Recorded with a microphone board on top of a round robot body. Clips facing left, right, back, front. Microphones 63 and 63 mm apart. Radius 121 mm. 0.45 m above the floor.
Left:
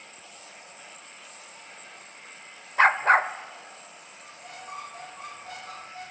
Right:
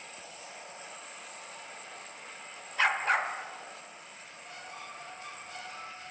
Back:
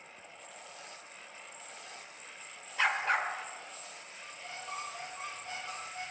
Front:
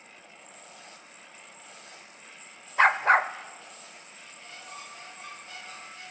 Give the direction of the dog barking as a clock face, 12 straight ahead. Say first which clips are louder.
Left 8 dB, front 9 dB; 11 o'clock.